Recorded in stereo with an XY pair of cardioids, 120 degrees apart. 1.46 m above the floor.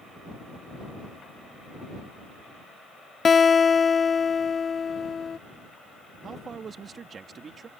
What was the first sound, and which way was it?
A guitar, 30° left.